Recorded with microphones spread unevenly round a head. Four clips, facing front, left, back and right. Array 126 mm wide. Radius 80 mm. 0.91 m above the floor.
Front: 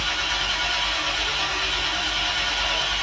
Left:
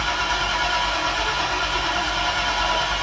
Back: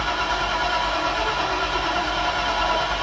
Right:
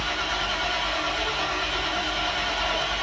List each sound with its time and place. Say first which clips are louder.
0.0 s an engine running: left 5 dB, back 6 dB; straight behind, 0.8 m